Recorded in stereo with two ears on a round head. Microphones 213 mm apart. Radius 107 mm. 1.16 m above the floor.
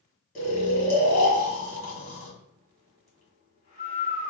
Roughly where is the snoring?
Left.